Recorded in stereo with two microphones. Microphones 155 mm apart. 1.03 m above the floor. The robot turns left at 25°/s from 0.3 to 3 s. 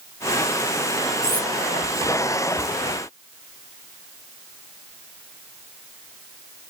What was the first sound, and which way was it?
Cutlery clinking, 80° right.